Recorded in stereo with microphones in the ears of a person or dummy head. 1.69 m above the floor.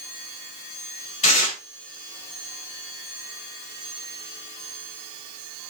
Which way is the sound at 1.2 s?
40° left (ahead or behind).